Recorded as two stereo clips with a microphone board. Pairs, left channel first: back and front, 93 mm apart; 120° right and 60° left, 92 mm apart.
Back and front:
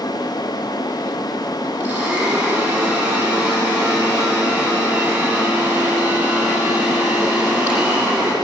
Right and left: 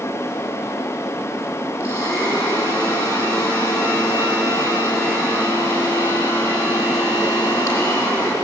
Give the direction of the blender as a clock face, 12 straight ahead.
2 o'clock.